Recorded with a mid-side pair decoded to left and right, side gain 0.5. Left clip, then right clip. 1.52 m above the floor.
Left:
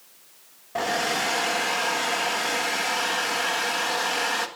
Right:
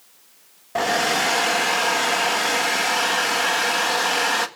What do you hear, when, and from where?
0.8 s a hair dryer: 35° right, 1.6 m